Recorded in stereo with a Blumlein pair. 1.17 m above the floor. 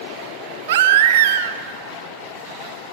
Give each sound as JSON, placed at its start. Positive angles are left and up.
{"t": 0.7, "sound": "a baby crying", "azimuth_deg": -55, "distance_m": 0.6}